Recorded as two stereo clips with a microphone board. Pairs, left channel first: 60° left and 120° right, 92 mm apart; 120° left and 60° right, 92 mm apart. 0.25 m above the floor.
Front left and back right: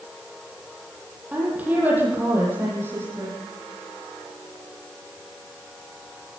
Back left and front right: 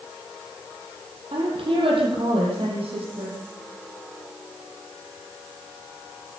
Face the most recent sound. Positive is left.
turn(degrees=-60)